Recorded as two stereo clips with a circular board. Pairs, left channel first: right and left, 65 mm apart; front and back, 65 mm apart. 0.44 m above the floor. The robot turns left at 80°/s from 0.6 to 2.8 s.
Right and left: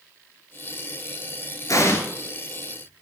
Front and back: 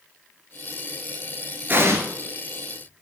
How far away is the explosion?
About 2.0 m.